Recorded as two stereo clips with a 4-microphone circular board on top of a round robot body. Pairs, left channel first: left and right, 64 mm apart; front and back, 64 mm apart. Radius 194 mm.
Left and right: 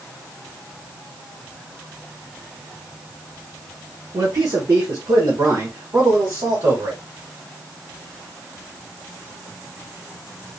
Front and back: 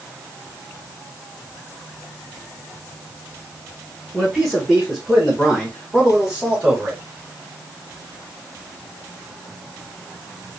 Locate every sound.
4.1 s a man speaking: 80° right, 1.3 m; by 7.0 s 100° right, 2.5 m